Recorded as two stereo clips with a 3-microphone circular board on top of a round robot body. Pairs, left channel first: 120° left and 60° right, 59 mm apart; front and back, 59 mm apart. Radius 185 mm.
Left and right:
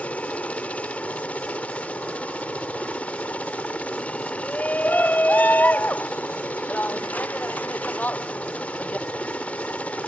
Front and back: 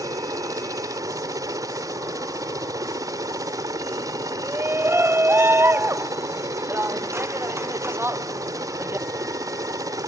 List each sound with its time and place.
0.0 s a helicopter: 175° right
4.4 s a shout: 165° left